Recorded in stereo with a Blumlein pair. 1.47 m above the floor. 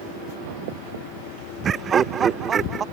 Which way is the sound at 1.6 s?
25° right.